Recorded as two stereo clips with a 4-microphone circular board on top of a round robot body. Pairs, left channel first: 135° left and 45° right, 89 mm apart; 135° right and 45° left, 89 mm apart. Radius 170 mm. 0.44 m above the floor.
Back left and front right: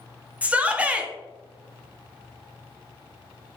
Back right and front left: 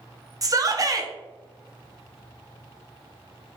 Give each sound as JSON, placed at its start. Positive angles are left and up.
{"t": 0.4, "sound": "a shout", "azimuth_deg": 25, "distance_m": 0.9}